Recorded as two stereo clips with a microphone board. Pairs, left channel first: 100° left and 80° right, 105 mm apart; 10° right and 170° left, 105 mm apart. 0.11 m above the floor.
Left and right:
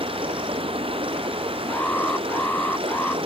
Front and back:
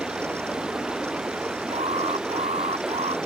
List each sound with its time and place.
0.0 s running water: 110° right
1.7 s an alarm: 175° left